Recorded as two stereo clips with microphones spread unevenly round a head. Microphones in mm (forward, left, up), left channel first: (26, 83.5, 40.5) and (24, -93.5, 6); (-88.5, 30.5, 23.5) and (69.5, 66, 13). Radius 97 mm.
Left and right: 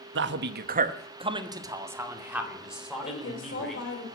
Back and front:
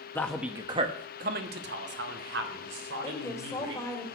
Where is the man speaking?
90° right, 1.1 m; by 3.8 s straight ahead, 4 m.